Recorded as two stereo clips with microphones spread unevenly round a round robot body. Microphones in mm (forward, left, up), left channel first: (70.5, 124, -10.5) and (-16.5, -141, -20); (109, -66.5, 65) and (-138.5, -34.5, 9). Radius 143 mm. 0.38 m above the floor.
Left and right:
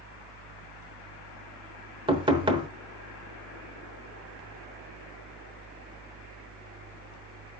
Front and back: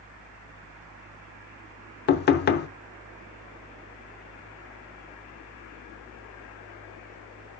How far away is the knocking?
About 0.9 m.